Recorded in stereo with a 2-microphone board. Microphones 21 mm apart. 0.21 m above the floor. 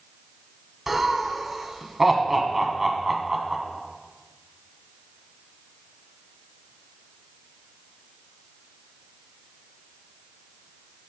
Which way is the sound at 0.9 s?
15° right (ahead or behind).